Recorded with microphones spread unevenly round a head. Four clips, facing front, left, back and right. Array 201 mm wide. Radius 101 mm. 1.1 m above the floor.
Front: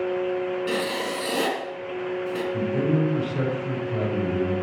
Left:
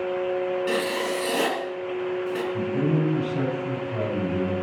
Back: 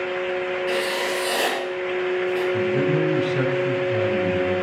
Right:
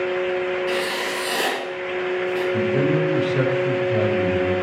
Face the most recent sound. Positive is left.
turn(degrees=-105)